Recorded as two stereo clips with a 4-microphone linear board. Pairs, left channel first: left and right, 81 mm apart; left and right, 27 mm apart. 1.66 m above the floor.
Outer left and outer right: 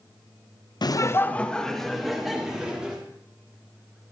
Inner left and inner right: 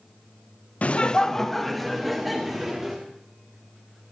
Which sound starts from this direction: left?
Laughter, at 0.8 s.